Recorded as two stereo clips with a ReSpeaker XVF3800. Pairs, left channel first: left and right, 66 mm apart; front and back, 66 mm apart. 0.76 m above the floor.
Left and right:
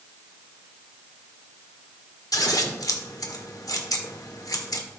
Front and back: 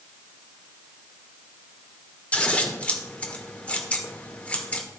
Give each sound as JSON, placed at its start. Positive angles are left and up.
{"t": 2.3, "sound": "scissors", "azimuth_deg": 70, "distance_m": 1.5}